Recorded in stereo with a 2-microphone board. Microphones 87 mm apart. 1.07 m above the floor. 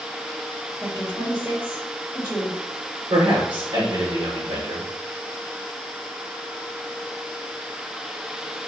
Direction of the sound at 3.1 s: 70° right (ahead or behind).